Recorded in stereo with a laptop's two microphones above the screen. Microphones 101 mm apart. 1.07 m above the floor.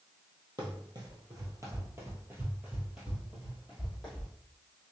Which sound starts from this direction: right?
Running footsteps, at 0.6 s.